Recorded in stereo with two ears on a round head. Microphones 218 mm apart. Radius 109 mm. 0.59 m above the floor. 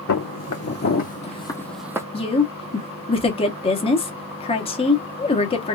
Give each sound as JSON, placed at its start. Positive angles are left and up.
{"t": 0.1, "sound": "footsteps", "side_deg": 55, "distance_m": 1.5}
{"t": 2.1, "sound": "a woman speaking", "side_deg": 20, "distance_m": 1.1}